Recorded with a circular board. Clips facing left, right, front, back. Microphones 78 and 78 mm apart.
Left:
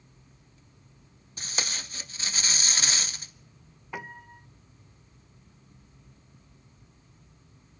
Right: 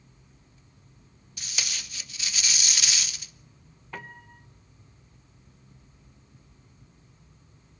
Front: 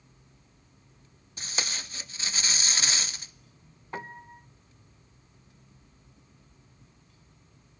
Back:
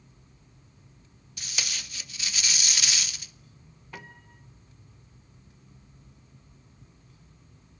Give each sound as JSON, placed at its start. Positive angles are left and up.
{"t": 1.4, "sound": "tape being pulled", "azimuth_deg": 45, "distance_m": 0.7}
{"t": 3.9, "sound": "a piano", "azimuth_deg": 20, "distance_m": 0.7}